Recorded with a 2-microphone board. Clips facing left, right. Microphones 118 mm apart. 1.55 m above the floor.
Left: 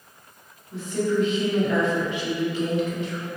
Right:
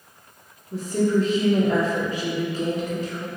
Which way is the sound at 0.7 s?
40° right (ahead or behind).